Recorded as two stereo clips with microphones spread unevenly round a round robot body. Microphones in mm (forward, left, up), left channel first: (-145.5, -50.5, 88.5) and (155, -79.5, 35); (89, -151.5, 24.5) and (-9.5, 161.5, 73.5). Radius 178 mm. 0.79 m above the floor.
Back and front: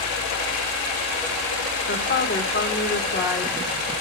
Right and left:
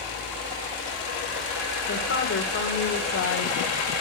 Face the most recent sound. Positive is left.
turn(degrees=-130)